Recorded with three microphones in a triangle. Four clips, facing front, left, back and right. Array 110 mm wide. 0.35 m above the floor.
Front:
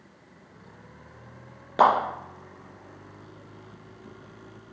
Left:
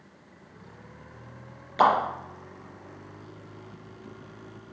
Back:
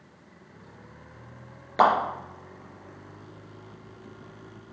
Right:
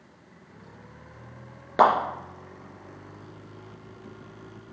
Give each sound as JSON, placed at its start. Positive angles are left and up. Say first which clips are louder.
{"t": 1.8, "sound": "a clap", "louder": "right 2 dB, front 1 dB", "azimuth_deg": -75, "distance_m": 4.0}